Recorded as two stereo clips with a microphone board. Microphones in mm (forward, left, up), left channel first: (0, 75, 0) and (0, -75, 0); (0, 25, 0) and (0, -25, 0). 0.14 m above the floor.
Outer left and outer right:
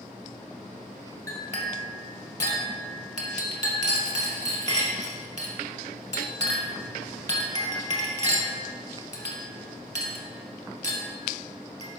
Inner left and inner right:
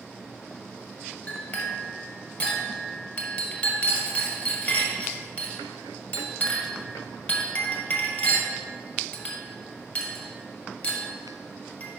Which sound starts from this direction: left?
A clink, at 1.3 s.